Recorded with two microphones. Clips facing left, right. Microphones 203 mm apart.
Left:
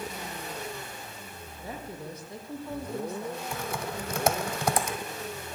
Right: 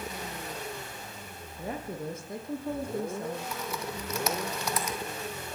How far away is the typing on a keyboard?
About 1.8 m.